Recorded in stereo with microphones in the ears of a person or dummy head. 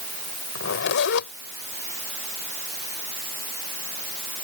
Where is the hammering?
No hammering in this recording.